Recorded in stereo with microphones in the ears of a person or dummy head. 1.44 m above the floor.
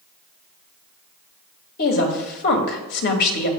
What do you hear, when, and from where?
1.8 s a woman speaking: 55° left (ahead or behind), 2.0 m